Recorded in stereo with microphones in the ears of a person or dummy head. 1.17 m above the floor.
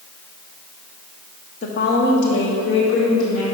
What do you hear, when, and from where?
1.6 s a woman speaking: 35° left (ahead or behind), 0.7 m; by 3.4 s 70° left (ahead or behind), 1.8 m